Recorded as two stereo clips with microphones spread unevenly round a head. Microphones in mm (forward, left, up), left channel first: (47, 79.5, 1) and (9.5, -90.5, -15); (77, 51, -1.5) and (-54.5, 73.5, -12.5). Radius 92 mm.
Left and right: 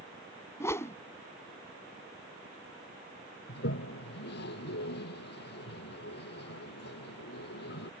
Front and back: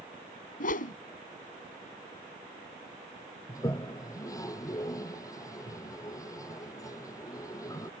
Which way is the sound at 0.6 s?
5° left.